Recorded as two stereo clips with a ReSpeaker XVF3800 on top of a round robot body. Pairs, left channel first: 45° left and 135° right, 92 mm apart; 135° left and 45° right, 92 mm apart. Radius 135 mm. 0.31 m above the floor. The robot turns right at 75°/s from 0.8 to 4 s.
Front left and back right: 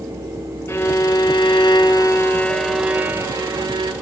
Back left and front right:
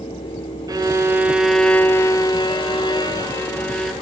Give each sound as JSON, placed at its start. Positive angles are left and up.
{"t": 0.7, "sound": "a violin", "azimuth_deg": -10, "distance_m": 0.8}